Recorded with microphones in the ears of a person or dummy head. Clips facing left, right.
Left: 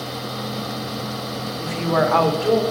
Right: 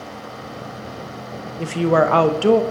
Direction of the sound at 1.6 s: 50° right (ahead or behind).